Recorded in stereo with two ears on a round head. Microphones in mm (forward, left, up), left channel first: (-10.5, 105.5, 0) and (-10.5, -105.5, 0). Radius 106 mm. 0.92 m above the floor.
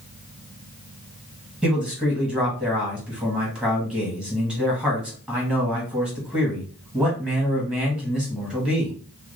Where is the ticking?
I don't hear ticking.